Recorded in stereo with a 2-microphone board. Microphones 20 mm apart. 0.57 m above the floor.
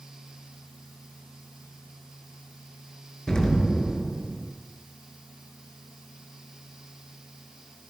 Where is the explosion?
30° left (ahead or behind), 6 m.